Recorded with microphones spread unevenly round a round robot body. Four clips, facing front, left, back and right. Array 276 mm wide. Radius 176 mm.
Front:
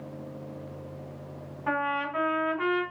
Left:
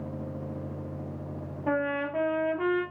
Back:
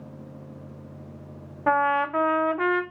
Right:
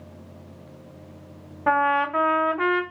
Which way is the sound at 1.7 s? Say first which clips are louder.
Right 8 dB, back 7 dB; 130° right.